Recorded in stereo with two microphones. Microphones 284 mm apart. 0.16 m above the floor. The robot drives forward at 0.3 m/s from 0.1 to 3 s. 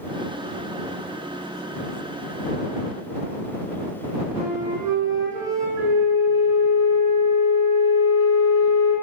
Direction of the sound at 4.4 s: 10° right (ahead or behind).